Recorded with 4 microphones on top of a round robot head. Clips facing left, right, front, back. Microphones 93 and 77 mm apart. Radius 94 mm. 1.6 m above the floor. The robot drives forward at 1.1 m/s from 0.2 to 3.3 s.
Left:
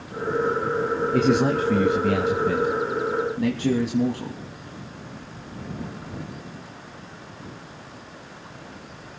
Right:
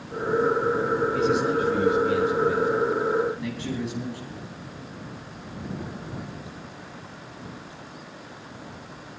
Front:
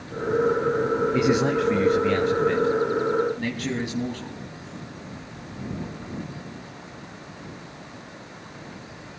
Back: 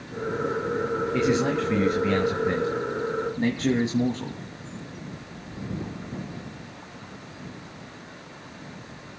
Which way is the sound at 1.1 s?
75° left.